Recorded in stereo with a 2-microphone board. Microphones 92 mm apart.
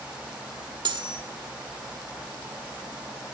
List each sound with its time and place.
0.8 s cutlery clinking: 65° right (ahead or behind), 1.6 m